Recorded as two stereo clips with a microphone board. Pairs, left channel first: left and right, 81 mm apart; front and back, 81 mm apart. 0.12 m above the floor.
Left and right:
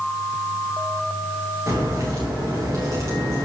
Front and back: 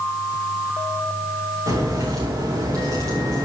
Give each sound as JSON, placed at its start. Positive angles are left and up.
{"t": 1.7, "sound": "a crack", "azimuth_deg": -140, "distance_m": 6.5}